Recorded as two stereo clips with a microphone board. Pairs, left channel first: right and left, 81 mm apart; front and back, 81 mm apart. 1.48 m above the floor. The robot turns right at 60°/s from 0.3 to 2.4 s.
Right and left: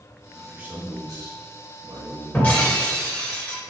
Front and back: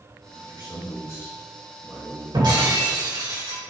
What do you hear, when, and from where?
0.3 s a man speaking: 5° left, 3 m; by 2.9 s 130° left, 3 m
2.3 s breaking glass: 165° right, 3 m; by 3.6 s 160° right, 3 m